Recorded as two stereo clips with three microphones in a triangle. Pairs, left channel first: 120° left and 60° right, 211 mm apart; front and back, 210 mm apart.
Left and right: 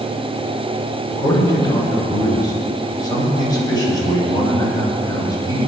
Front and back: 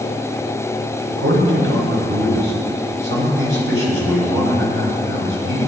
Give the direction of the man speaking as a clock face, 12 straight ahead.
6 o'clock.